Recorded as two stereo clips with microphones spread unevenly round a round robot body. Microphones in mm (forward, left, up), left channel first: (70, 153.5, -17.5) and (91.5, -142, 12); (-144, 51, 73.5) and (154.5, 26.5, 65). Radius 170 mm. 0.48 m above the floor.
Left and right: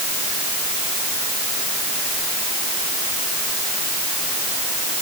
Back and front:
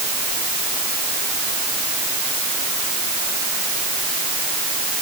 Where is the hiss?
No hiss in this recording.